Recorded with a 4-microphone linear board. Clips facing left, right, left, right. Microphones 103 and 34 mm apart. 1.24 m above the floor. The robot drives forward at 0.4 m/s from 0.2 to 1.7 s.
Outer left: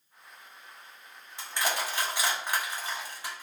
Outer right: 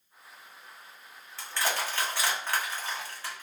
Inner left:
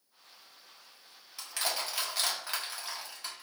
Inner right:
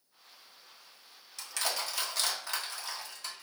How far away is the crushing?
About 0.9 m.